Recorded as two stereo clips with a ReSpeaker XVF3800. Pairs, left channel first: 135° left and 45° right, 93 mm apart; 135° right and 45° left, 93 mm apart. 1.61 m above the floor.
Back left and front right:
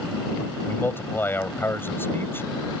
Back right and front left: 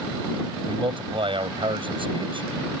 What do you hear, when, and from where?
0.7 s a man speaking: 70° left